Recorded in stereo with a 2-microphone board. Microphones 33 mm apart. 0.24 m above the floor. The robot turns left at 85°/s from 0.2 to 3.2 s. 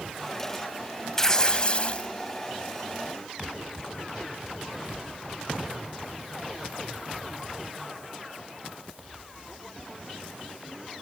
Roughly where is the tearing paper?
Behind left.